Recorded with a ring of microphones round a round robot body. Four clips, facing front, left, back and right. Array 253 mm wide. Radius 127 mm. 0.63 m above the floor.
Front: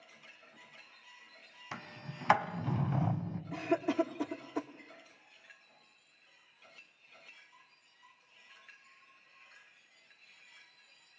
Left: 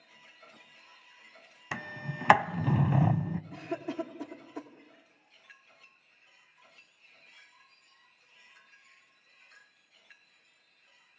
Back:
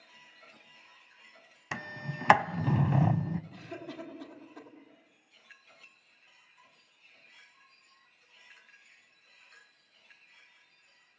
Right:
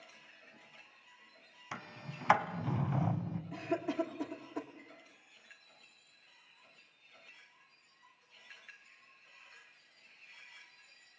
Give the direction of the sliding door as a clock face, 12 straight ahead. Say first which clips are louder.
Left 7 dB, back 6 dB; 8 o'clock.